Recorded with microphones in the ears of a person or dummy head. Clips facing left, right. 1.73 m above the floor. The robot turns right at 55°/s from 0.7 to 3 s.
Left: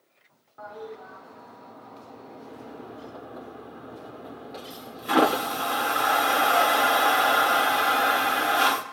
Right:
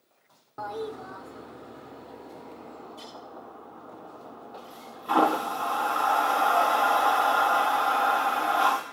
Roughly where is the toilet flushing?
Right.